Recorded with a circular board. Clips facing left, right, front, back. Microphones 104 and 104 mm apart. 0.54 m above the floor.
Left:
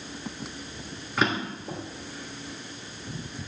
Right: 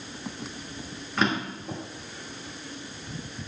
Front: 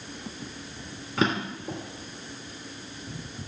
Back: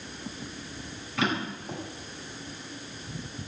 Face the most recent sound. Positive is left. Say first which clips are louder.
# even, front 3 dB
turn(degrees=5)